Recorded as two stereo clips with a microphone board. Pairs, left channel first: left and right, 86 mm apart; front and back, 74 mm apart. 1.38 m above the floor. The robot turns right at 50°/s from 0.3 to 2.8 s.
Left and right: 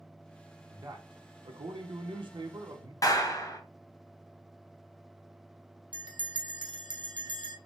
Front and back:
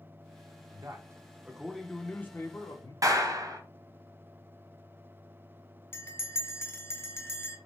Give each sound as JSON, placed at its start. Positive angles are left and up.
{"t": 0.7, "sound": "a man speaking", "azimuth_deg": -140, "distance_m": 0.8}
{"t": 3.0, "sound": "a clap", "azimuth_deg": 140, "distance_m": 0.8}
{"t": 5.9, "sound": "a bell", "azimuth_deg": -60, "distance_m": 0.6}